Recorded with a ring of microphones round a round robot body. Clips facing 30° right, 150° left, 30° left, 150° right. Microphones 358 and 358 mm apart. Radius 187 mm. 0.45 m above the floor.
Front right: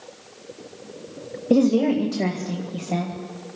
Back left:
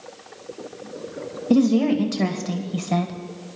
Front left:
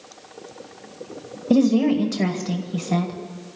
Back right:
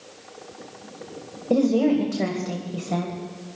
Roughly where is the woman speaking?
Left.